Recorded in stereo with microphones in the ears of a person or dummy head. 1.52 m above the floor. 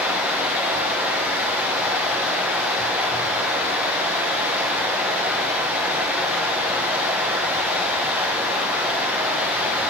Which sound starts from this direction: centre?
Running water, at 0.0 s.